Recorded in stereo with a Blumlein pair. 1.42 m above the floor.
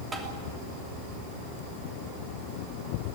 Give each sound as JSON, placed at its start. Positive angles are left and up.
{"t": 0.1, "sound": "tapping", "azimuth_deg": -15, "distance_m": 3.0}